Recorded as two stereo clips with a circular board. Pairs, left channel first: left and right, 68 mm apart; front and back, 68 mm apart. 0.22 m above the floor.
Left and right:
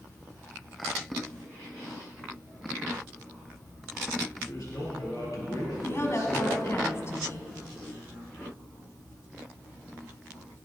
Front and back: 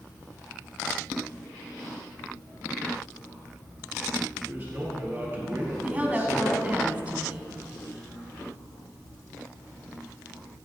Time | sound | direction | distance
4.4 | a man speaking | 120° left | 4 m
5.8 | a woman speaking | 115° left | 1.4 m